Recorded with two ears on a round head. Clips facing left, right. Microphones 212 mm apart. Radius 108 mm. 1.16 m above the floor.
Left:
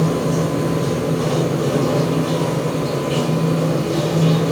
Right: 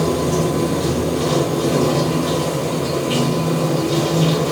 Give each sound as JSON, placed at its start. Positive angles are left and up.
{"t": 0.0, "sound": "running water", "side_deg": -55, "distance_m": 2.0}